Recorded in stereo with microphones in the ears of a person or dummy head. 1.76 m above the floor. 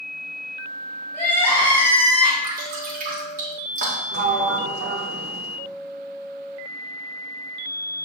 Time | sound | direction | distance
1.1 | crying | 15° left (ahead or behind) | 2.5 m
2.4 | dripping | 40° right (ahead or behind) | 2.5 m
4.1 | a sliding door | 60° right (ahead or behind) | 0.9 m